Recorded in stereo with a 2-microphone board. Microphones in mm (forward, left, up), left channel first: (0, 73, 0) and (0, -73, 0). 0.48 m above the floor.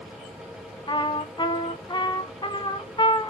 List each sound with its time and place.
0.9 s a trumpet: 35° left (ahead or behind), 0.7 m